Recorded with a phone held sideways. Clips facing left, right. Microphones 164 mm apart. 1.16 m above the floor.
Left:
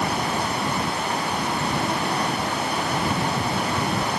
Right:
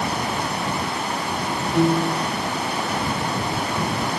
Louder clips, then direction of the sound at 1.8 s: Right 6 dB; 75° right (ahead or behind).